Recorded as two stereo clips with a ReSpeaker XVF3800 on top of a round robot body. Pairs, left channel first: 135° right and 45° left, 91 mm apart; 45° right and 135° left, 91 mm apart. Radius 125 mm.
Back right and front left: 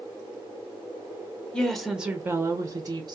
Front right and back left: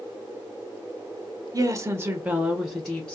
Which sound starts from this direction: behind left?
A woman speaking, at 1.5 s.